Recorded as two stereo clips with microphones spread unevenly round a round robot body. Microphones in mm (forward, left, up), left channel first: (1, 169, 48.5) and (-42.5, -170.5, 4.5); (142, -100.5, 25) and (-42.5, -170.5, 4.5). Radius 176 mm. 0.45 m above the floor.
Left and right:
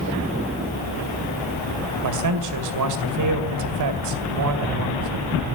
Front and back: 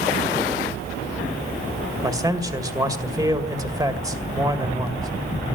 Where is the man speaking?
90° right, 2 m.